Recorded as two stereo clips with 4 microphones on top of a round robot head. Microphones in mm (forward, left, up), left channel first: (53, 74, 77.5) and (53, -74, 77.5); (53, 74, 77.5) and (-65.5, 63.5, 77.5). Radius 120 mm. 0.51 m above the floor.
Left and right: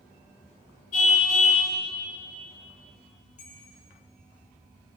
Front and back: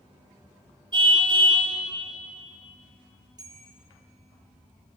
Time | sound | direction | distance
0.9 | a car horn | 135° left | 6 m
3.4 | a bell | 130° left | 7.5 m